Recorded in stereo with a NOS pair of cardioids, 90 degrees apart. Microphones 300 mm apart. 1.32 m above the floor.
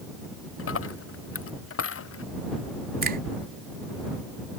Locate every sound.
0.6 s a dropped coin: 45° left
3.0 s a finger snap: 30° right